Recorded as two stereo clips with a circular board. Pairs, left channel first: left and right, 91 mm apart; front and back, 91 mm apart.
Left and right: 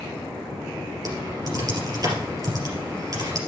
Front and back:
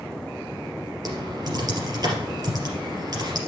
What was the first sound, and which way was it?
Typing on a keyboard, 135° right.